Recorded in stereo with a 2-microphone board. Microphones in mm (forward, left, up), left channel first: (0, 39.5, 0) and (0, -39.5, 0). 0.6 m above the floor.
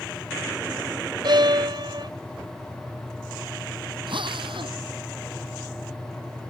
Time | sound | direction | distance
1.2 | a violin | 70° right (ahead or behind) | ?
4.1 | a drill | 85° right | ?